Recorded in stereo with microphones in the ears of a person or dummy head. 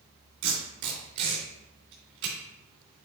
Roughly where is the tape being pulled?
Right.